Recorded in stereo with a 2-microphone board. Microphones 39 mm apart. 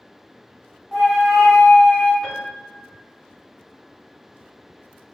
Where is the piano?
10° right (ahead or behind), 1.6 m.